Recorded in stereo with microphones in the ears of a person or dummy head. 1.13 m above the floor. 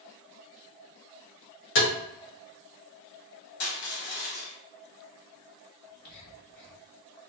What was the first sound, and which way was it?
Tapping, 60° left (ahead or behind).